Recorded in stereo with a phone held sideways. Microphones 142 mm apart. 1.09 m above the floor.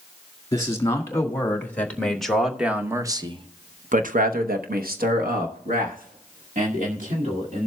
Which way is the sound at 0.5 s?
20° left (ahead or behind).